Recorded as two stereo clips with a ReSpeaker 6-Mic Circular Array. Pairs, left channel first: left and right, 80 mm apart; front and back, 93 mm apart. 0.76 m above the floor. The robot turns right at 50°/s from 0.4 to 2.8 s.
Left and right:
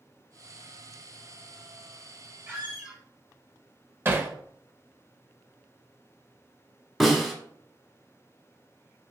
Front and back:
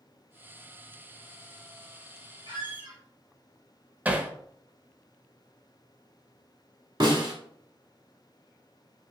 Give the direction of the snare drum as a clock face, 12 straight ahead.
6 o'clock.